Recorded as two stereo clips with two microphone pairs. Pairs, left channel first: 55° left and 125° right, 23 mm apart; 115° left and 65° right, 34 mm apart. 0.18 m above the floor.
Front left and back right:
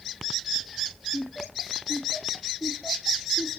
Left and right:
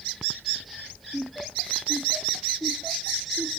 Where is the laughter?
5° left; by 3.6 s 10° right.